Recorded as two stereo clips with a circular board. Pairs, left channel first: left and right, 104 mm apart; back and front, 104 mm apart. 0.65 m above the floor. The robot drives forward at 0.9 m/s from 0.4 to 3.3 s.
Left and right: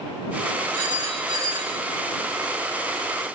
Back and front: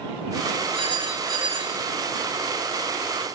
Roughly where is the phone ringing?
Ahead right.